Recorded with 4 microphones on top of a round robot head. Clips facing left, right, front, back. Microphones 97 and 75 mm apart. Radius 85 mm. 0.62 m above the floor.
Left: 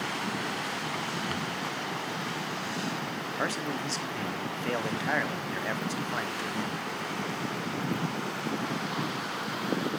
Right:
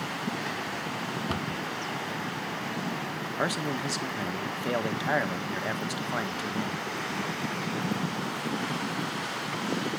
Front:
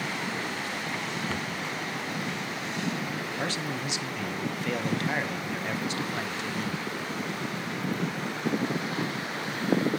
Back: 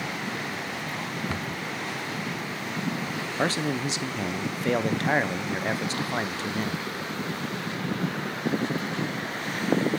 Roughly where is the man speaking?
Behind.